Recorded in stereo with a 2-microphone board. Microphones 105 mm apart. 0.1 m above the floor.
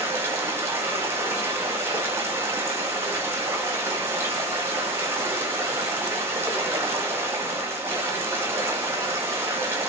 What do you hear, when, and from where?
0.0 s running water: 20° right (ahead or behind), 1.2 m